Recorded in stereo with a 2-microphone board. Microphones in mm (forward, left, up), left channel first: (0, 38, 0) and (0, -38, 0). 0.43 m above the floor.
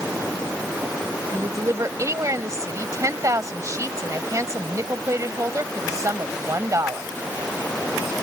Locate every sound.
1.3 s a woman speaking: 45° right (ahead or behind)